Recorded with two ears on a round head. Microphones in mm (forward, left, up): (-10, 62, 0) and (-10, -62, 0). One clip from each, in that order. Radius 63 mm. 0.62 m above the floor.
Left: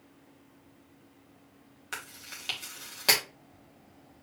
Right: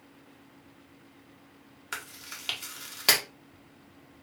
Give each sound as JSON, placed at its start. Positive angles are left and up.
{"t": 1.9, "sound": "chewing", "side_deg": -15, "distance_m": 1.2}